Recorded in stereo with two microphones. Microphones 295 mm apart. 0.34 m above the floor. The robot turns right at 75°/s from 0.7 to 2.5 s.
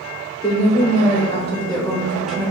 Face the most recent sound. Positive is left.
turn(degrees=-5)  # may be behind; listen again after turning